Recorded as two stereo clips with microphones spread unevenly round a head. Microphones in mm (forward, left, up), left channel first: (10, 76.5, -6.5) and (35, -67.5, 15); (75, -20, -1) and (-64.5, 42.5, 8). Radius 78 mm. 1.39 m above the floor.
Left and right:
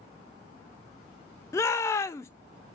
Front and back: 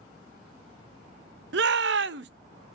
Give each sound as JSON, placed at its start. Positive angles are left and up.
{"t": 1.5, "sound": "a shout", "azimuth_deg": 170, "distance_m": 0.6}